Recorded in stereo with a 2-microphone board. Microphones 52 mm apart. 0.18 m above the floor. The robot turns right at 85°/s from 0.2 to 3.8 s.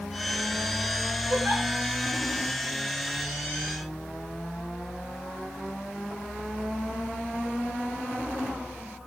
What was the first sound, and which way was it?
A giggle, 55° right (ahead or behind).